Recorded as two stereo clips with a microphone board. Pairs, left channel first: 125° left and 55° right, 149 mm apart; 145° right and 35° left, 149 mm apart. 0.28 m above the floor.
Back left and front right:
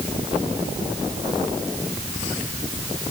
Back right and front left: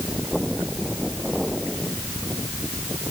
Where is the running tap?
I don't hear a running tap.